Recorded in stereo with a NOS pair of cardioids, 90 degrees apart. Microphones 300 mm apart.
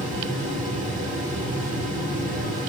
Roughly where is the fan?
Ahead right.